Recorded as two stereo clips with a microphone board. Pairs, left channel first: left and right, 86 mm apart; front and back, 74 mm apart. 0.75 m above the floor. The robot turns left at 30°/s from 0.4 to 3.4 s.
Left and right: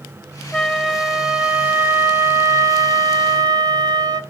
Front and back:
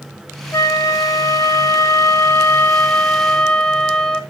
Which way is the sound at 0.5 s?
10° left.